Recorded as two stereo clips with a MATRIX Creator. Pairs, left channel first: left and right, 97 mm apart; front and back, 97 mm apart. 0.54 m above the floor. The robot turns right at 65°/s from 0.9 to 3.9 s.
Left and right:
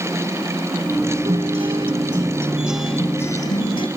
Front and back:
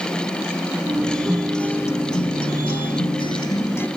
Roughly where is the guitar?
Right.